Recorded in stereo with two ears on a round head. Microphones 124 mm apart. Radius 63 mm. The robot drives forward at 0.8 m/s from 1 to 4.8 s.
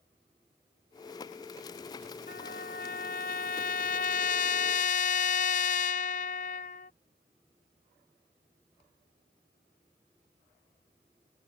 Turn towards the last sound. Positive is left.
turn(degrees=65)  # may be behind; listen again after turning